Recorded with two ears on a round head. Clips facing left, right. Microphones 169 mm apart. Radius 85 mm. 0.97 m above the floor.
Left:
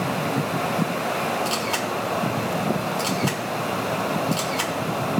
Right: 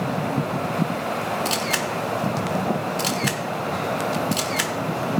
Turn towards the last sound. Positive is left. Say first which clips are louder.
# even
turn(degrees=-20)  # may be behind; listen again after turning